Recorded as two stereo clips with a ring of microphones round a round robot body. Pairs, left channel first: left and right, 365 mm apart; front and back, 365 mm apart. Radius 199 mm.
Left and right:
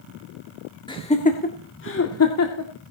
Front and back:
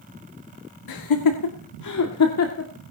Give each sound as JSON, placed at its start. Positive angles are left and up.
{"t": 0.9, "sound": "laughter", "azimuth_deg": 15, "distance_m": 1.9}